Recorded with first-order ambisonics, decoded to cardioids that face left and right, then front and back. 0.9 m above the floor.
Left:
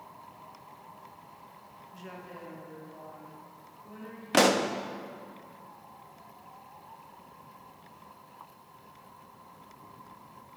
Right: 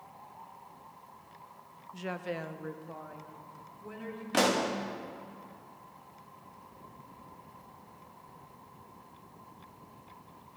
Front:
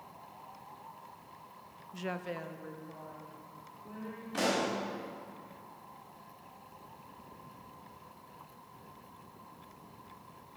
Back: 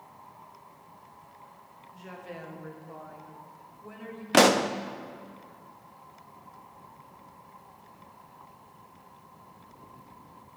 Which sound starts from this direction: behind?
A pop, at 4.3 s.